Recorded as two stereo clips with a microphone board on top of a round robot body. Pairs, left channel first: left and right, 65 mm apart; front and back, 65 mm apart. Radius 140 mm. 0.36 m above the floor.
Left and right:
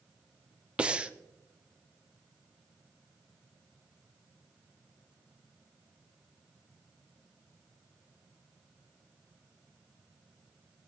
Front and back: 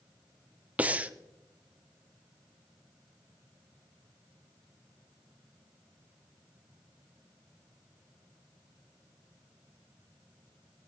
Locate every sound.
0.8 s breathing: 145° right, 0.9 m